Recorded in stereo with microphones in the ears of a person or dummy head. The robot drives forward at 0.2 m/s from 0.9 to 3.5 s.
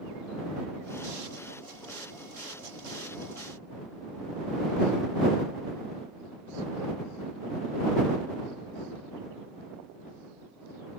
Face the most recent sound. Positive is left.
No sound to turn to.